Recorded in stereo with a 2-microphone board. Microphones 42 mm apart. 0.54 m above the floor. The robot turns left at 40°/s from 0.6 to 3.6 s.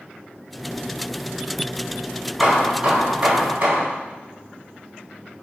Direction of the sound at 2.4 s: 5° left.